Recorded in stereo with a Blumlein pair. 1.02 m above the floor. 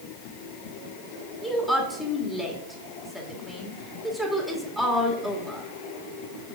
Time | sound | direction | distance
1.4 | a woman speaking | straight ahead | 2 m